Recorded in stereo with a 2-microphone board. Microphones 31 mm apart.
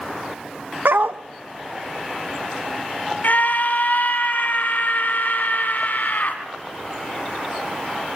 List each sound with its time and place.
0.8 s a dog barking: 80° right, 0.7 m
3.2 s a scream: 60° left (ahead or behind), 3 m